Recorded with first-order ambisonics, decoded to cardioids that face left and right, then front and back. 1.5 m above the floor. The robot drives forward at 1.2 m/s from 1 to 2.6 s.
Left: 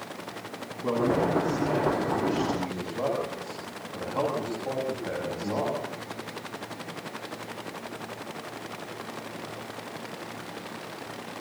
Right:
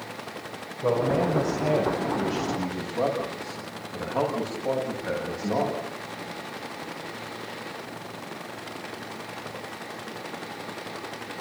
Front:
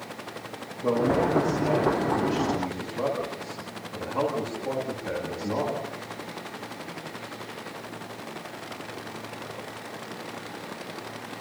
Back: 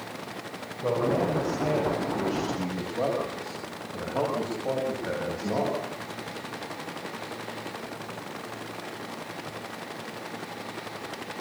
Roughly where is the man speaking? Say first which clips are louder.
Right 2 dB, front 2 dB; right.